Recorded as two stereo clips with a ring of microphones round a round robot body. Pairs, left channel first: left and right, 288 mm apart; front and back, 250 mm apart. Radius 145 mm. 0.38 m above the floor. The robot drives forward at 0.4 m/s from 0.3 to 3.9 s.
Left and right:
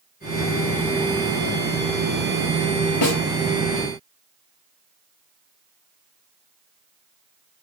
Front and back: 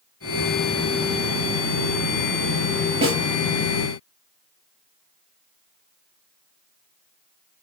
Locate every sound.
3.0 s a snare drum: 110° left, 6.5 m